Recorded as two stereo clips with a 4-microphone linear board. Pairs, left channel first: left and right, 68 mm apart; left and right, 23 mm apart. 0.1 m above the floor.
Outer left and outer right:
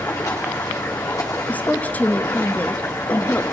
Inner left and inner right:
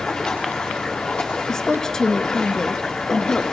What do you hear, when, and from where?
0.0 s running water: 55° left (ahead or behind), 8 m
1.5 s a woman speaking: 25° left (ahead or behind), 1.4 m